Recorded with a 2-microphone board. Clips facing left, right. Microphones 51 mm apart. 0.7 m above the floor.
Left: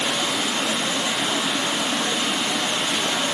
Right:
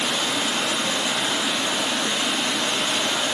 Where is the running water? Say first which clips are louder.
Even; 25° left (ahead or behind), 0.8 m.